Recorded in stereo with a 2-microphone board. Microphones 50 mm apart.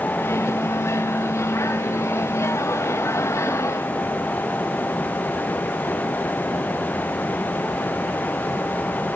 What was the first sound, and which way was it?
A microwave, 65° left (ahead or behind).